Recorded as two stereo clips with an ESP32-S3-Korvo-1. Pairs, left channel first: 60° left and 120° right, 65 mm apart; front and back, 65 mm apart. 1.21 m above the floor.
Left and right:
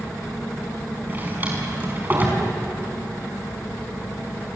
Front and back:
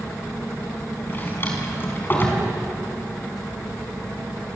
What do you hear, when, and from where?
1.1 s a drawer: 60° right, 5 m